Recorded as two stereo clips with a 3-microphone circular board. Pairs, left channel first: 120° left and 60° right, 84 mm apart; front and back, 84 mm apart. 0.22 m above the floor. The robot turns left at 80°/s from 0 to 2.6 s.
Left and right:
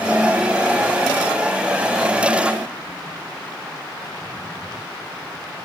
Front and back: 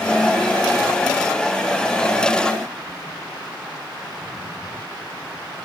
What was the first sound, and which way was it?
Only background noise.